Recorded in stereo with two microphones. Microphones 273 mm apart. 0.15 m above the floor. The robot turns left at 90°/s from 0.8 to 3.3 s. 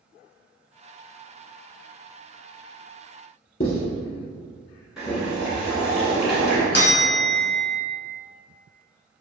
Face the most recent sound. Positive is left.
turn(degrees=40)  # may be behind; listen again after turning